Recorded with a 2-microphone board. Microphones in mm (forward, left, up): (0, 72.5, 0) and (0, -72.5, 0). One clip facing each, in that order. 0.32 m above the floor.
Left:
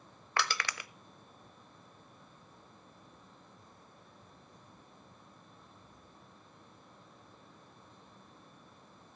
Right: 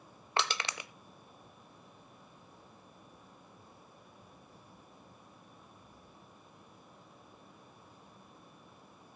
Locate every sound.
0.4 s crushing: 25° right (ahead or behind), 0.6 m